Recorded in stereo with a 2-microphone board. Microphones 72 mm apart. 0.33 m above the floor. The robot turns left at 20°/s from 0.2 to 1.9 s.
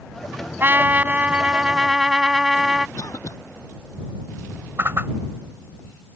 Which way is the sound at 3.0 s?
55° left (ahead or behind).